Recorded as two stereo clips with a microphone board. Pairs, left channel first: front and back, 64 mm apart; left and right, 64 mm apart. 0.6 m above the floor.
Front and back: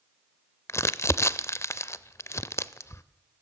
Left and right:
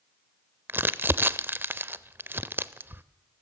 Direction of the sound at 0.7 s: 40° right.